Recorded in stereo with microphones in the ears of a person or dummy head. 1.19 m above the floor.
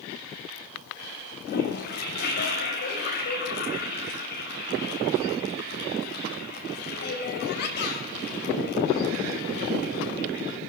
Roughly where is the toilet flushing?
Left.